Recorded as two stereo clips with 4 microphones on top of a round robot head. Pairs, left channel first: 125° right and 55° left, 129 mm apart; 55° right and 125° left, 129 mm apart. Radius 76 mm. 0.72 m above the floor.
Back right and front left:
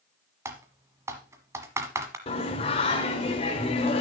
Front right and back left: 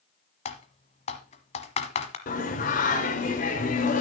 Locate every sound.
0.5 s typing on a keyboard: 15° right, 1.2 m
2.3 s singing: 75° right, 2.0 m